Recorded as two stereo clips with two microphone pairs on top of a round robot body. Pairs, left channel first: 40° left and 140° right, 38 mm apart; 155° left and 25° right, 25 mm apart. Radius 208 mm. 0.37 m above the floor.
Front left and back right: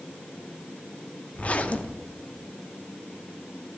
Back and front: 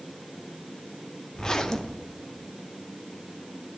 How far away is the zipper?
About 0.9 m.